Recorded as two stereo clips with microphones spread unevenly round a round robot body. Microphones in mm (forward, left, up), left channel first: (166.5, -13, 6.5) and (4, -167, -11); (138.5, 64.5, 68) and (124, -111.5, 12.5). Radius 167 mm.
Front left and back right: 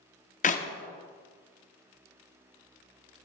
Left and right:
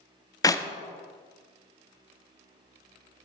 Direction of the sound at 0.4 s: Straight ahead.